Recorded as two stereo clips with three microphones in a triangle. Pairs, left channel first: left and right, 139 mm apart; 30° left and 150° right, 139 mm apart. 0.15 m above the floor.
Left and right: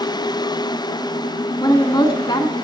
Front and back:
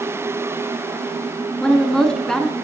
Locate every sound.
1.6 s a woman speaking: 110° left, 1.2 m